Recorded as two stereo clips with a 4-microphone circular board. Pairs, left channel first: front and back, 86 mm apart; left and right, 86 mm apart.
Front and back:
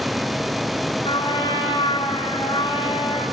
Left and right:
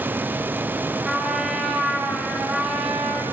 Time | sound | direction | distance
1.1 | a trumpet | 10° right | 7.5 m